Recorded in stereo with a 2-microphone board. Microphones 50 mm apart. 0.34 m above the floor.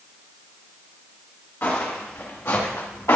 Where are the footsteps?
50° left (ahead or behind), 3.5 m; by 3.2 s 80° left, 2 m.